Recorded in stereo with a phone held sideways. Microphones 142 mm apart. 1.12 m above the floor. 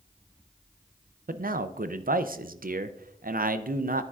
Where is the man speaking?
85° right, 0.5 m.